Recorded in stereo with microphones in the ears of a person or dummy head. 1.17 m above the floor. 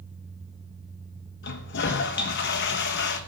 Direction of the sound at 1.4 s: 55° left (ahead or behind).